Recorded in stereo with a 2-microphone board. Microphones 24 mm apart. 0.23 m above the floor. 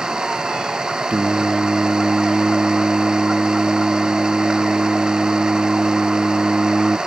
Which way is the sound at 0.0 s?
35° right (ahead or behind).